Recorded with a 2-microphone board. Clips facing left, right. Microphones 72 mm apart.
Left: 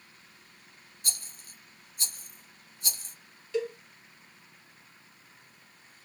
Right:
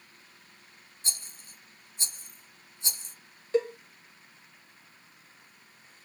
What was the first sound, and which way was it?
A rattle, 25° right (ahead or behind).